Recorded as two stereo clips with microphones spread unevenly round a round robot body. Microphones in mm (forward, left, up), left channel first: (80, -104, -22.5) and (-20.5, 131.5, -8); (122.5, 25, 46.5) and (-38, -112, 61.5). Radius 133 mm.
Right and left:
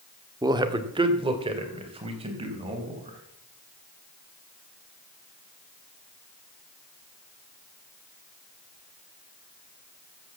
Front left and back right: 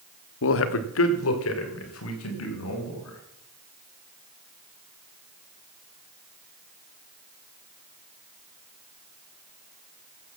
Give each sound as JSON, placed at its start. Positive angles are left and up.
{"t": 0.4, "sound": "a man speaking", "azimuth_deg": 35, "distance_m": 1.2}